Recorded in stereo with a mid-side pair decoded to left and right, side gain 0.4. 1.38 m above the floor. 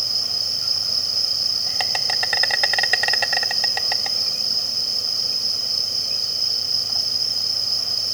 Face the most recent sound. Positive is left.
turn(degrees=-20)